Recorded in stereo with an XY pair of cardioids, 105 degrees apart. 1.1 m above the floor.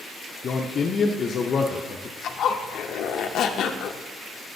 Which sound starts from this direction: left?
A zipper, at 2.2 s.